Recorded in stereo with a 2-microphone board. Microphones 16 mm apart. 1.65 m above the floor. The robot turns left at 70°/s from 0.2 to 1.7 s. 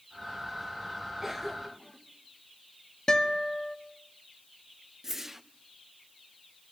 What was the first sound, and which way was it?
A cough, 25° right (ahead or behind).